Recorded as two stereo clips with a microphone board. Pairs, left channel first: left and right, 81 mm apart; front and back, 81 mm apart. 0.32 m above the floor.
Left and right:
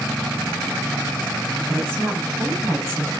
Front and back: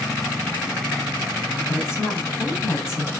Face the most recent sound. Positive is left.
turn(degrees=-40)